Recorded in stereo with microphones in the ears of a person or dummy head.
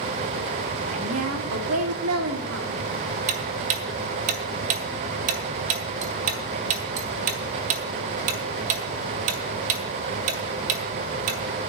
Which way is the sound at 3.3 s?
45° right (ahead or behind).